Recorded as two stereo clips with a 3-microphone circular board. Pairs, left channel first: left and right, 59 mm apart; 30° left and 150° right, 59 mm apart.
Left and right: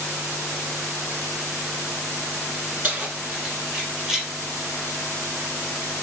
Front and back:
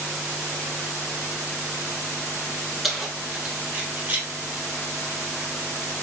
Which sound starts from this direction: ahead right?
Keys jangling, at 2.8 s.